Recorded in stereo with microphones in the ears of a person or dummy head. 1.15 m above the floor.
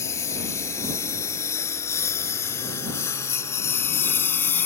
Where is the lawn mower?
10° left (ahead or behind); by 4.7 s 5° left (ahead or behind).